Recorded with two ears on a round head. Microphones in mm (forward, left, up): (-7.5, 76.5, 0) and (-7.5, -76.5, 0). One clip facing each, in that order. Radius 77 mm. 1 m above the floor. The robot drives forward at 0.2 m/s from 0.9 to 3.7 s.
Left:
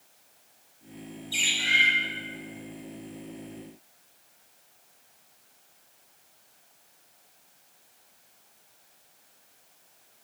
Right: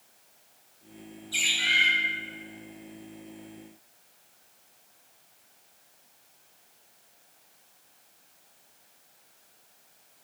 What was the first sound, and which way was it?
A bird, 30° left (ahead or behind).